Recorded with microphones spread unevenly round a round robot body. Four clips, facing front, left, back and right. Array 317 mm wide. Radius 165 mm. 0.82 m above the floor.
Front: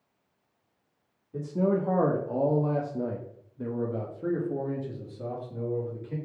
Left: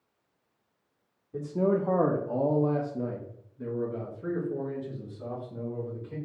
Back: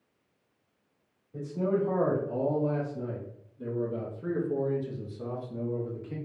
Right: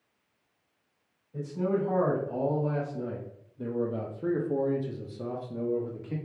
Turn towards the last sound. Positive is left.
turn(degrees=-75)